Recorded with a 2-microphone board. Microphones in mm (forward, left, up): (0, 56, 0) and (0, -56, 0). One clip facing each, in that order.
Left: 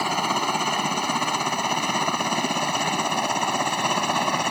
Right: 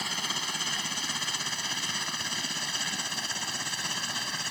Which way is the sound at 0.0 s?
60° left (ahead or behind).